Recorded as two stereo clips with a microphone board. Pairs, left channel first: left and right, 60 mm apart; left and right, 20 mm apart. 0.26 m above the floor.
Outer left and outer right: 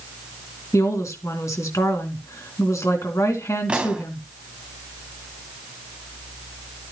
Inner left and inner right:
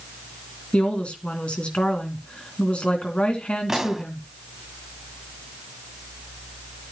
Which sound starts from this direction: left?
A woman speaking, at 0.7 s.